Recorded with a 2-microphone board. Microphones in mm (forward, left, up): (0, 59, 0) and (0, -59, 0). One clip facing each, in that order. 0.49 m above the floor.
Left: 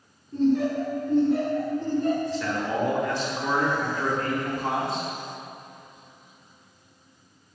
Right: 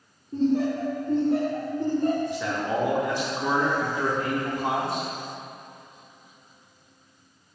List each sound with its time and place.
0.3 s laughter: 30° right (ahead or behind), 1.5 m; by 2.2 s 40° right (ahead or behind), 1.9 m
2.3 s a man speaking: 15° right (ahead or behind), 1.0 m